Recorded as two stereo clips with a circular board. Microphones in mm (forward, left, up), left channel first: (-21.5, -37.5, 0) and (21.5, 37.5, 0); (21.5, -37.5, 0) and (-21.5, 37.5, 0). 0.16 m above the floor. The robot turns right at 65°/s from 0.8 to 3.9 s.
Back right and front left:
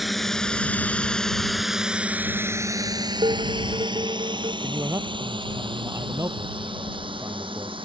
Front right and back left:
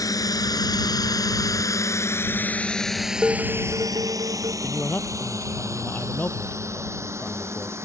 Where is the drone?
30° right; by 7.9 s 60° left.